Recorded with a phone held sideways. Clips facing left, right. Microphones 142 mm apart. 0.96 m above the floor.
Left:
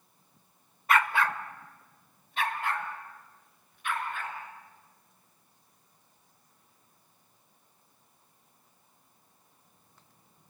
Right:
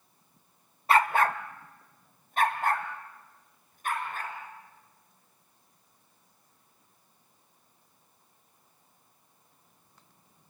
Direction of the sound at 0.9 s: 30° right (ahead or behind).